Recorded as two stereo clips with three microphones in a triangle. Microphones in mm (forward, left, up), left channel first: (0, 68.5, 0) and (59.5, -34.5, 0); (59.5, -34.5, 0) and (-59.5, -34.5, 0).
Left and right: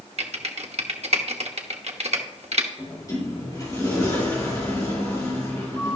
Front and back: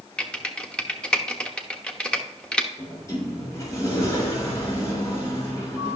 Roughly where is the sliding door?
Ahead left.